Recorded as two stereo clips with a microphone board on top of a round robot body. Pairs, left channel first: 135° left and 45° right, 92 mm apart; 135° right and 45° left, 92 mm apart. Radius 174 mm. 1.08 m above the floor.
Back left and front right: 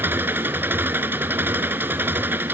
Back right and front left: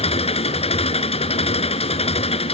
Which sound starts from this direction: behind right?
An engine running, at 0.0 s.